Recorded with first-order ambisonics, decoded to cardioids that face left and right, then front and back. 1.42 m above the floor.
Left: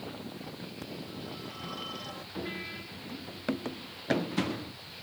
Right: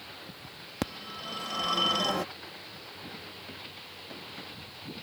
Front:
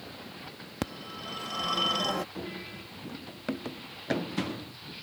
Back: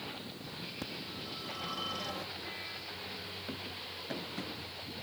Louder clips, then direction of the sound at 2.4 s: Left 6 dB, front 1 dB; 50° left.